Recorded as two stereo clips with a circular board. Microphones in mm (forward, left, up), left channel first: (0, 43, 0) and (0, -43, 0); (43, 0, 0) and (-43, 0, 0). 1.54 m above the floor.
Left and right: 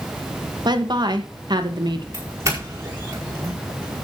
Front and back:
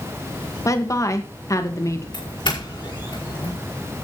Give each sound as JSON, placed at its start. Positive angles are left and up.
{"t": 0.7, "sound": "a woman speaking", "azimuth_deg": -55, "distance_m": 1.9}
{"t": 2.1, "sound": "a doorbell", "azimuth_deg": -35, "distance_m": 5.0}